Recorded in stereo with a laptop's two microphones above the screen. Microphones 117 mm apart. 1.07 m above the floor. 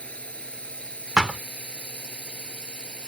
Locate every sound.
0.0 s a drone: 10° left (ahead or behind)
1.2 s a thud: 10° right (ahead or behind)